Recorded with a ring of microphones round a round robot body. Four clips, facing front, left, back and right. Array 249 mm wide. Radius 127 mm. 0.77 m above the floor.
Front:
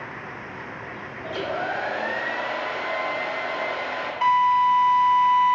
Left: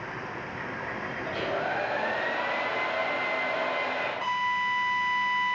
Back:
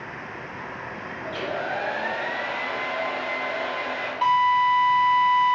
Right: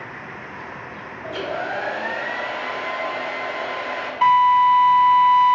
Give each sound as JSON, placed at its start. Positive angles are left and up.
{"t": 1.2, "sound": "a hair dryer", "azimuth_deg": -50, "distance_m": 2.5}
{"t": 4.2, "sound": "a drill", "azimuth_deg": -80, "distance_m": 3.0}